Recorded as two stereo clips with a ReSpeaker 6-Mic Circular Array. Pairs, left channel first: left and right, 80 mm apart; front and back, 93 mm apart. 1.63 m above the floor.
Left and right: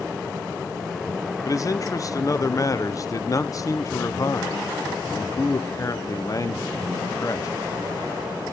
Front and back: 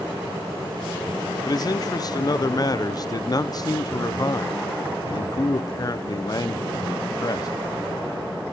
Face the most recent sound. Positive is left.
turn(degrees=45)